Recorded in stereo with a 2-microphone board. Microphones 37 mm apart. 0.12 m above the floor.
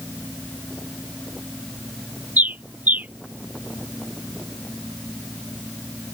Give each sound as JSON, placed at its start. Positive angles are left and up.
{"t": 2.4, "sound": "a bird", "side_deg": -55}